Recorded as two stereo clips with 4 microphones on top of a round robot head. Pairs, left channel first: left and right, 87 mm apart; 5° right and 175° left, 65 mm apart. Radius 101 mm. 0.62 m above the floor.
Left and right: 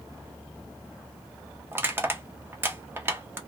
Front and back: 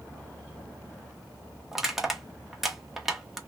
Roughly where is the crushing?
Right.